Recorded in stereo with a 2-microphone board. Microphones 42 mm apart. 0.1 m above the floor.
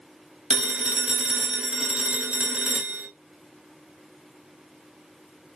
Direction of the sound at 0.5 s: 25° right (ahead or behind).